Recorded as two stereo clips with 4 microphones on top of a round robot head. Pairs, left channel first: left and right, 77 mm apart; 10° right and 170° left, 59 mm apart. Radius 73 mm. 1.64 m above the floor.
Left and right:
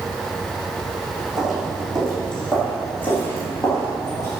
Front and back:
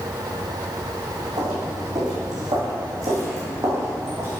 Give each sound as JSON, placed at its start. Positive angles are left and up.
{"t": 1.4, "sound": "footsteps", "azimuth_deg": -175, "distance_m": 5.0}